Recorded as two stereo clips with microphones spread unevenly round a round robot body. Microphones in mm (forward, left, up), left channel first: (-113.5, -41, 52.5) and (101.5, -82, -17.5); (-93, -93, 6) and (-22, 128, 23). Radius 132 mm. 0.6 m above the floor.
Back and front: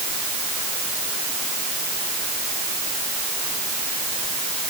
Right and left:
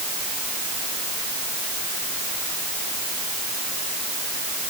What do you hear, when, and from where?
Only background noise.